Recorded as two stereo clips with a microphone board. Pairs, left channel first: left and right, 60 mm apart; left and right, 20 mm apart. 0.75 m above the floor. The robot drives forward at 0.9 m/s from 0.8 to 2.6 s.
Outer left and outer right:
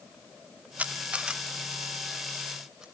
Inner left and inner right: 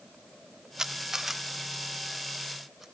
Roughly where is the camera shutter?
Right.